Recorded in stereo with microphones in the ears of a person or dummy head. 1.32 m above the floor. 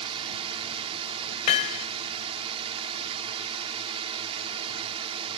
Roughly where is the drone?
Right.